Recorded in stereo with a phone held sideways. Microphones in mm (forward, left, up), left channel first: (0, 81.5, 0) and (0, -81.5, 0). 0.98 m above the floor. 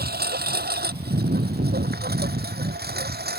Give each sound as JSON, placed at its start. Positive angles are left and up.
{"t": 0.0, "sound": "a lawn mower", "side_deg": -75}